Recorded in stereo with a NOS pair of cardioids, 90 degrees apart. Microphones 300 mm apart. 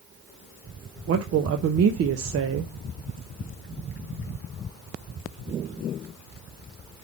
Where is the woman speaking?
55° right, 0.8 m.